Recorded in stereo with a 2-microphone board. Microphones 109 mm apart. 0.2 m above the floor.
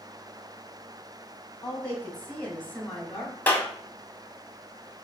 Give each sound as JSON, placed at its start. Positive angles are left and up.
{"t": 1.6, "sound": "a woman speaking", "side_deg": 15, "distance_m": 1.1}
{"t": 3.5, "sound": "a clap", "side_deg": 15, "distance_m": 0.8}